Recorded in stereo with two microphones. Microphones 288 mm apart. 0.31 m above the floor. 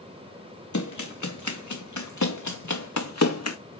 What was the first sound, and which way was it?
Running footsteps, 80° left.